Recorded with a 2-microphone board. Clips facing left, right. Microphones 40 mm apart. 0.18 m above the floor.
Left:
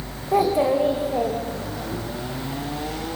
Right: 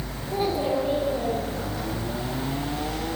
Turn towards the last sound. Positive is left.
turn(degrees=70)  # may be behind; listen again after turning